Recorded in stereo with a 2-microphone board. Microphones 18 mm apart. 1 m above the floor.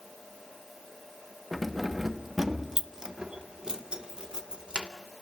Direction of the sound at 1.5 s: 10° left (ahead or behind).